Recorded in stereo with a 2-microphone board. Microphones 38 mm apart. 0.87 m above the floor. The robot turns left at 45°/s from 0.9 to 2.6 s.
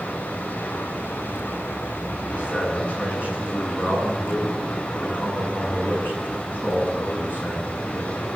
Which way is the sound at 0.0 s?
135° left.